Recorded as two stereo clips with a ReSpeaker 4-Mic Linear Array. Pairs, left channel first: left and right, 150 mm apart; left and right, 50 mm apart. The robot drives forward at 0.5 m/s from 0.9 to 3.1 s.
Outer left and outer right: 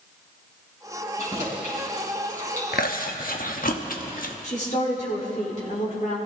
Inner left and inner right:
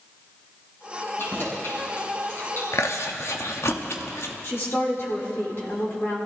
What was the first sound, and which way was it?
Keys jangling, 50° left (ahead or behind).